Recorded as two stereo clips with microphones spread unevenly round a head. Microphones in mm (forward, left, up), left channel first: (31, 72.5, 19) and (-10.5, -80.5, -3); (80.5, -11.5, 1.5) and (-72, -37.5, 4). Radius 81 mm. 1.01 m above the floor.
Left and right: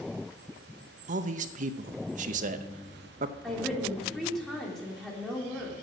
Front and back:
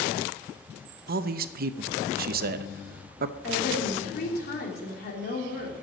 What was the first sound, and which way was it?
A man speaking, 145° right.